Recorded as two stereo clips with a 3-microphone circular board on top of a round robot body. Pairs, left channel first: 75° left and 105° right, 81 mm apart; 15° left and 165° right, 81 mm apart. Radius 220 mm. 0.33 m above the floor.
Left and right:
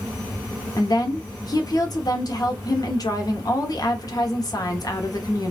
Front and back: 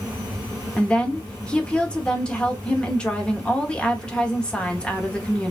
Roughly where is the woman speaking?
Left.